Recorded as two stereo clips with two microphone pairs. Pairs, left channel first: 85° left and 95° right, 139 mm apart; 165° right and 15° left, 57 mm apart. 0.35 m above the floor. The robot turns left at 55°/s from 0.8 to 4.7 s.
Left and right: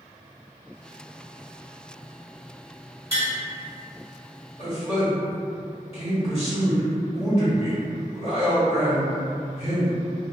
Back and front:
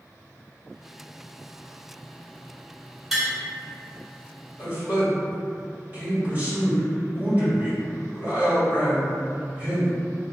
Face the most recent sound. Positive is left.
turn(degrees=60)